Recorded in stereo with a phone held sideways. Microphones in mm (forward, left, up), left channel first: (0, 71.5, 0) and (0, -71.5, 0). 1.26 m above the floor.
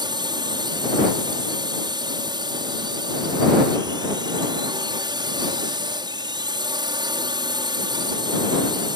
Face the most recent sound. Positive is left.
turn(degrees=-30)  # may be behind; listen again after turning